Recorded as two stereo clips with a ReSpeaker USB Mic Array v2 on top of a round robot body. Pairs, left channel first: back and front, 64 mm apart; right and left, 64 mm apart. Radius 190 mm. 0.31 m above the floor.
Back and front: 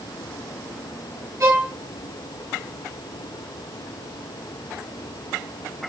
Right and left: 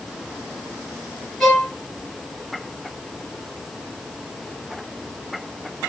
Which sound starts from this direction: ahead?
A violin, at 1.4 s.